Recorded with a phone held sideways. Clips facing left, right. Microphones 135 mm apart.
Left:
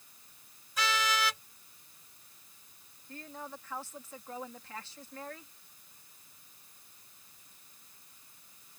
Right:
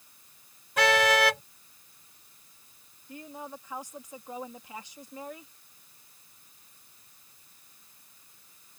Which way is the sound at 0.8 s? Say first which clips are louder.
Right 9 dB; 75° right (ahead or behind).